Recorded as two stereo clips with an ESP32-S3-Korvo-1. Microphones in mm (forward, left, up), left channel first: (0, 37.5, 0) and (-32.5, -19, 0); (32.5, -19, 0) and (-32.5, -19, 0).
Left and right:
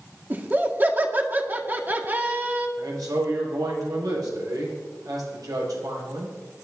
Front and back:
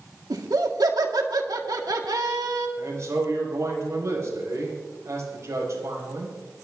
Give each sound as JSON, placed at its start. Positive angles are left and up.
{"t": 0.3, "sound": "laughter", "azimuth_deg": 180, "distance_m": 1.9}
{"t": 2.8, "sound": "a man speaking", "azimuth_deg": -135, "distance_m": 6.0}